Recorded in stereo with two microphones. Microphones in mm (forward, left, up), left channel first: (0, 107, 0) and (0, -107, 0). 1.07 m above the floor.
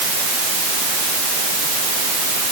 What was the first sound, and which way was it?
Only background noise.